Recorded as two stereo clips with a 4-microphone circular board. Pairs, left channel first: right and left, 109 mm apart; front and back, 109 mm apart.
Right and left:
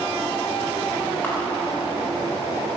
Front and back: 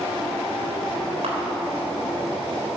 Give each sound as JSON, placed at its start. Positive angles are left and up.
{"t": 1.2, "sound": "a camera shutter", "azimuth_deg": -160, "distance_m": 4.0}